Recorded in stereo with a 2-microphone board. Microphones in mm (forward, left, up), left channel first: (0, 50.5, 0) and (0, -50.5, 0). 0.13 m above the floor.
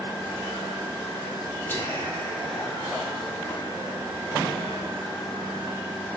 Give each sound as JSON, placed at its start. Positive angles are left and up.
{"t": 1.7, "sound": "whispering", "side_deg": 25, "distance_m": 1.1}